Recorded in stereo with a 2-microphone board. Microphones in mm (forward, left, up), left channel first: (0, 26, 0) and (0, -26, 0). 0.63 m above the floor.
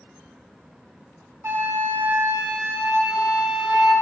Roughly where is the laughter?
I don't hear laughter.